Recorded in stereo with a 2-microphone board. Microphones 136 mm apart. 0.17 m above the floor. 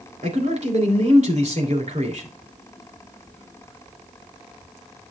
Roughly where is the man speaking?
Right.